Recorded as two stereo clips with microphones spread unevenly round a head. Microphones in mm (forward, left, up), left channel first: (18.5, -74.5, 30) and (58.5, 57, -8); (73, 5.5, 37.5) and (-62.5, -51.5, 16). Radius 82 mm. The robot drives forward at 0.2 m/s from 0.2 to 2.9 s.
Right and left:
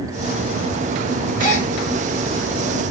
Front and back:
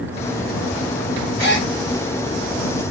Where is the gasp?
105° right, 2.0 m.